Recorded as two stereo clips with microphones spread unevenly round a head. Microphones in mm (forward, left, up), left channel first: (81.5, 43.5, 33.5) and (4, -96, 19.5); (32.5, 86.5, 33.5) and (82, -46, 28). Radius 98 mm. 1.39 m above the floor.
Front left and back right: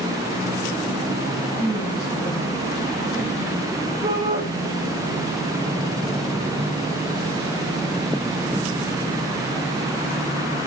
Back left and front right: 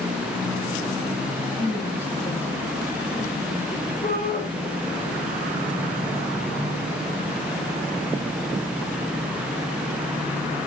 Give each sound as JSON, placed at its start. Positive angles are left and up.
{"t": 1.6, "sound": "a woman speaking", "azimuth_deg": 170, "distance_m": 10.0}
{"t": 4.0, "sound": "a shout", "azimuth_deg": 170, "distance_m": 1.8}